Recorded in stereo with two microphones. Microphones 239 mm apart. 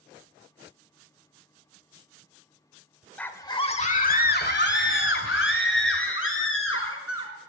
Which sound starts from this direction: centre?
A scream, at 3.2 s.